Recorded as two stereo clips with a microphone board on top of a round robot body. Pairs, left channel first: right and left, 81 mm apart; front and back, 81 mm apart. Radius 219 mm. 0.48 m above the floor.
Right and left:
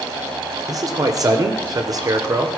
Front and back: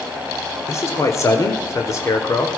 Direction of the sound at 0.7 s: 50° left.